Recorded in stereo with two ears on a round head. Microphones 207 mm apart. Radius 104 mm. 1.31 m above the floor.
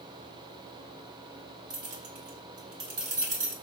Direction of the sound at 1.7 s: 60° right (ahead or behind).